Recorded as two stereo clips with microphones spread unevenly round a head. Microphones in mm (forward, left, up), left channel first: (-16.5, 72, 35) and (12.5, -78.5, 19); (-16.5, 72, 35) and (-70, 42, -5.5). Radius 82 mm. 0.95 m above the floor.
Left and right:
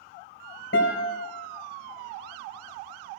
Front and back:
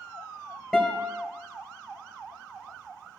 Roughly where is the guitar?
Behind left.